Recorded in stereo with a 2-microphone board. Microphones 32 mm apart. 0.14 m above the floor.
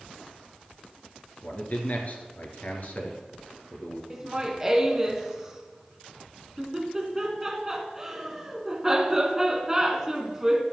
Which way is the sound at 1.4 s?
50° left (ahead or behind).